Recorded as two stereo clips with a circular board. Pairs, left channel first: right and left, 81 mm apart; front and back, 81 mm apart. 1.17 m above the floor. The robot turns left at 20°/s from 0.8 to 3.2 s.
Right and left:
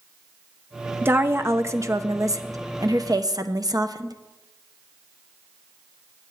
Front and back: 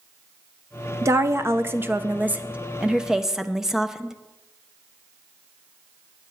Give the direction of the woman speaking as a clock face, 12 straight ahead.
7 o'clock.